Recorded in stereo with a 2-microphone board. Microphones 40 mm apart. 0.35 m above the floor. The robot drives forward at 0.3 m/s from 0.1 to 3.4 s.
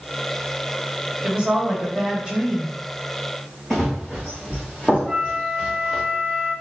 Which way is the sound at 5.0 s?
5° left (ahead or behind).